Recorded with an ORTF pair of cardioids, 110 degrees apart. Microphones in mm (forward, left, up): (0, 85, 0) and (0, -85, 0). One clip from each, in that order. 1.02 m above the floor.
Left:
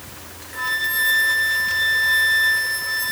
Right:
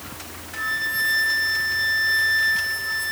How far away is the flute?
About 1.3 m.